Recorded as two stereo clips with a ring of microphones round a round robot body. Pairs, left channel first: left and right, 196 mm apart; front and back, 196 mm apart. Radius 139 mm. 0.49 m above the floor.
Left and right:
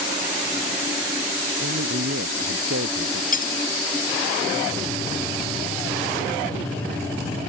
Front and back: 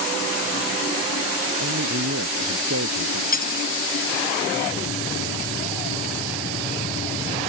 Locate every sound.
1.6 s a man speaking: 140° right
3.3 s cutlery clinking: 45° left